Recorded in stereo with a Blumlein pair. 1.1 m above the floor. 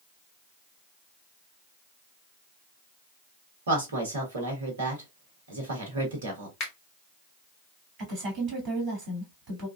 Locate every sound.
3.7 s a woman speaking: 65° right, 1.3 m
6.6 s a finger snap: 40° left, 1.3 m
8.0 s a woman speaking: 35° right, 2.0 m